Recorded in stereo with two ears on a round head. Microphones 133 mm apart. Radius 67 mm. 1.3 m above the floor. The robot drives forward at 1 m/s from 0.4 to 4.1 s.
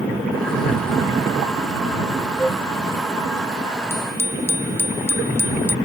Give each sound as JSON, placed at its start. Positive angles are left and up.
{"t": 2.4, "sound": "a flute", "side_deg": 5}
{"t": 3.9, "sound": "a bicycle bell", "side_deg": 20}